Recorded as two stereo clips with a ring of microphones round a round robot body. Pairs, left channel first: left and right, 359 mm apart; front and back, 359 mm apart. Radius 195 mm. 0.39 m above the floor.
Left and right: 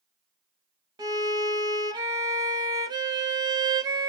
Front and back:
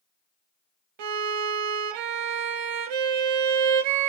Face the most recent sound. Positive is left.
turn(degrees=-170)